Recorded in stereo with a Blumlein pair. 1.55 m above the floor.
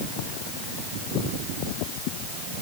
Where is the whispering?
No whispering in this recording.